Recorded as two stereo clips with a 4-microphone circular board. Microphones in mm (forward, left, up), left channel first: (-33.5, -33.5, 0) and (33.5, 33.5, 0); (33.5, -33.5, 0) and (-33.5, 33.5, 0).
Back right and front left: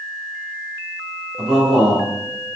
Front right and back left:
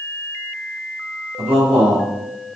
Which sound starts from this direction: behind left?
A man speaking, at 1.4 s.